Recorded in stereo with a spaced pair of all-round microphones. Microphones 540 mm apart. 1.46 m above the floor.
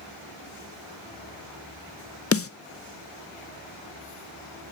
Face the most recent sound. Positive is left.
turn(degrees=25)  # may be behind; listen again after turning